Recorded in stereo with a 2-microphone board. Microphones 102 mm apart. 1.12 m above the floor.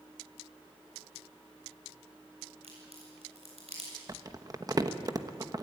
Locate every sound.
2.6 s a crack: 80° right, 8 m
4.1 s crumpling: 35° right (ahead or behind), 1.1 m